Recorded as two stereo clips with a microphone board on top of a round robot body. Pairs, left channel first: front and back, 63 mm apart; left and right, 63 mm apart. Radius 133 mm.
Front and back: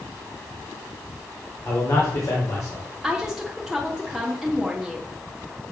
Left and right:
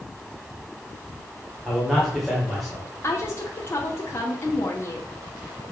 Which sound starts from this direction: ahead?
A man speaking, at 1.6 s.